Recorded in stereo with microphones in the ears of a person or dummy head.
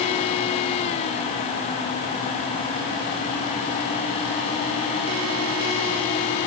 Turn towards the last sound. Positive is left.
No sound to turn to.